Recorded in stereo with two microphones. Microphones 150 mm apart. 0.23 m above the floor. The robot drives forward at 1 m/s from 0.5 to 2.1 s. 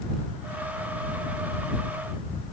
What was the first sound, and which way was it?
Only background noise.